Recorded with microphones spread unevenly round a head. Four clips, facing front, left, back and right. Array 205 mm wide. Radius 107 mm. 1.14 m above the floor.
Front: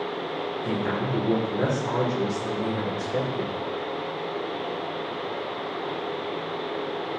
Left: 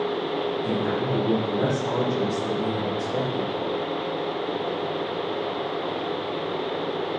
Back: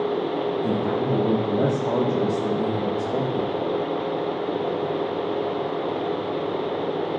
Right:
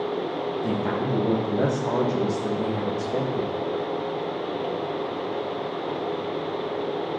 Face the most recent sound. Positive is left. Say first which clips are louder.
# left 1 dB, back 4 dB
turn(degrees=-155)